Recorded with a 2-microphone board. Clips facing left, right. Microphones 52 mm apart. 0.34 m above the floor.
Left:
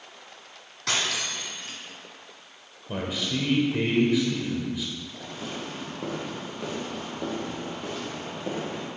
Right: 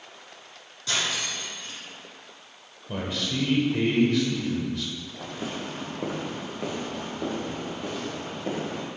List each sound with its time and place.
0.9 s cutlery clinking: 75° left (ahead or behind), 1.7 m
2.9 s a man speaking: 10° left (ahead or behind), 1.0 m
5.2 s footsteps: 40° right (ahead or behind), 1.6 m; by 8.9 s 5° left (ahead or behind), 4 m